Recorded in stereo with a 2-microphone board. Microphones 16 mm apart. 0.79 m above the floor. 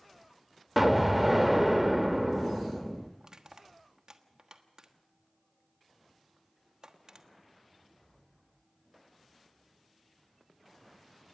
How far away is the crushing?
About 1.3 m.